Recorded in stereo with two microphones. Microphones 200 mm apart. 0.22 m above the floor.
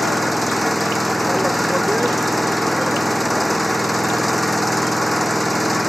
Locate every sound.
0.0 s an engine running: centre (ahead or behind)